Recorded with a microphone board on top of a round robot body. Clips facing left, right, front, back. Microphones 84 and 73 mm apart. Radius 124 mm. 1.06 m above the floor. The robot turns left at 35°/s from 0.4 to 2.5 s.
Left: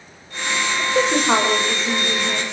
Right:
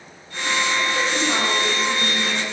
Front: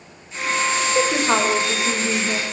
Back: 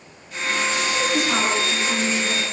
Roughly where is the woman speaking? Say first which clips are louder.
Left 5 dB, front 4 dB; ahead left.